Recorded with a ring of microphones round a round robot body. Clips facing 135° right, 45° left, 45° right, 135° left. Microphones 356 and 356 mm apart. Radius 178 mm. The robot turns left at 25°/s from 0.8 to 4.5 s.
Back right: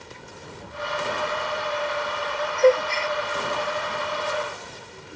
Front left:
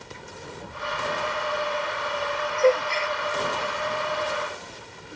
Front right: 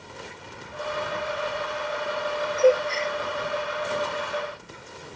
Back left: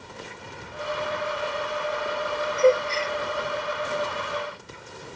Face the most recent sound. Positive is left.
turn(degrees=175)